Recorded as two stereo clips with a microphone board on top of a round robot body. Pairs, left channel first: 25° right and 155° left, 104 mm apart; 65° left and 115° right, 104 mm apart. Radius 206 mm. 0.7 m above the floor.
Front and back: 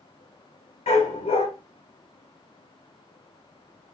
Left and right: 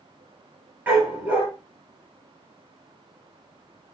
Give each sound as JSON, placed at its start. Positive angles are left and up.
{"t": 0.9, "sound": "a dog barking", "azimuth_deg": -35, "distance_m": 4.0}